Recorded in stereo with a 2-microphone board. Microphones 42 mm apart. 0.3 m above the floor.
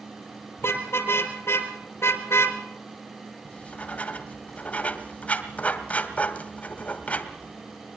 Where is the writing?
35° left (ahead or behind), 2 m.